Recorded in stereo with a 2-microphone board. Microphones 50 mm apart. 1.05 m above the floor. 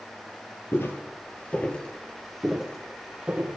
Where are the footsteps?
50° left (ahead or behind), 1.6 m; by 3.6 s 20° right (ahead or behind), 2 m.